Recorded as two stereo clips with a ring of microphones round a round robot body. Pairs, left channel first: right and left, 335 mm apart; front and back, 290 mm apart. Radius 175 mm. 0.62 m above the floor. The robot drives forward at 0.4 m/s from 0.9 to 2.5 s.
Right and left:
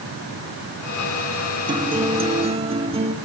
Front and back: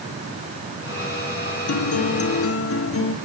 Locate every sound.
1.7 s a guitar: 15° left, 1.9 m; by 3.1 s 20° left, 1.7 m